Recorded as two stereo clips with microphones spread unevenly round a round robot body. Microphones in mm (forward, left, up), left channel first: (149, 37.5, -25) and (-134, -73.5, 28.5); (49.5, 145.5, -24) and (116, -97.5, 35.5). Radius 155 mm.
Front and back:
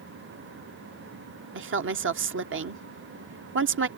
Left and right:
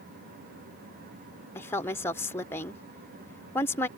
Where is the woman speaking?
160° left.